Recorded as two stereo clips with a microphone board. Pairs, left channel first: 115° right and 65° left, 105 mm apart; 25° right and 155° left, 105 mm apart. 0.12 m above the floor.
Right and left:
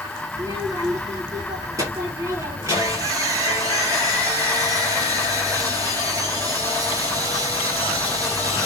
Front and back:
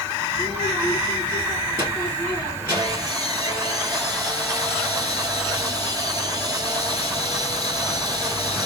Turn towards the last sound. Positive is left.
turn(degrees=115)